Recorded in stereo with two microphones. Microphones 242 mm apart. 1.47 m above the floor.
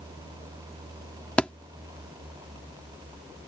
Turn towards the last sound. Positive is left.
turn(degrees=5)  # may be behind; listen again after turning